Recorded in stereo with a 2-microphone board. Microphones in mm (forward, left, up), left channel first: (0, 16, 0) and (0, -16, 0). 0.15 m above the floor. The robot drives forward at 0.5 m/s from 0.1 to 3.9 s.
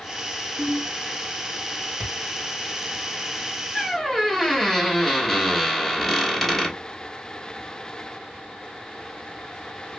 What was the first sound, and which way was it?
A ringtone, 35° right (ahead or behind).